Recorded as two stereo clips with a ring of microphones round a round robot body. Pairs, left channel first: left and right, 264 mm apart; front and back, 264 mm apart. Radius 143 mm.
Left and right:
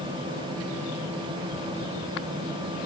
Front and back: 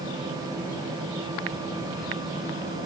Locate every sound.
Only background noise.